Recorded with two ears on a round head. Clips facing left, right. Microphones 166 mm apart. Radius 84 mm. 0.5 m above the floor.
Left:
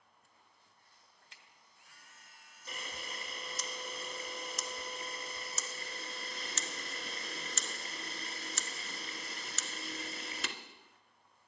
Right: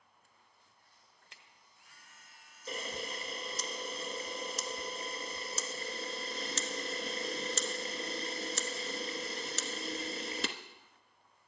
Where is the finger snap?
50° right (ahead or behind), 1.5 m.